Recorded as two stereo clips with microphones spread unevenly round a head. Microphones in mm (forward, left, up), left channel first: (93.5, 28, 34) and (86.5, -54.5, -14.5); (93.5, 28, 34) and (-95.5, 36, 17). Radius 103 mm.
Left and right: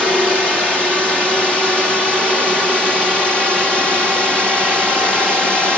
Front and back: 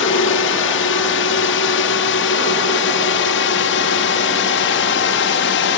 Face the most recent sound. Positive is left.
turn(degrees=-10)